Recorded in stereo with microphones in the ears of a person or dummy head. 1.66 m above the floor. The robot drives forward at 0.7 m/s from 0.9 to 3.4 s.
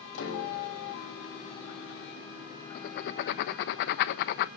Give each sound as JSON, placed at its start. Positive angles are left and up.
{"t": 0.1, "sound": "a piano", "side_deg": 75, "distance_m": 4.5}
{"t": 2.8, "sound": "writing", "side_deg": 50, "distance_m": 1.2}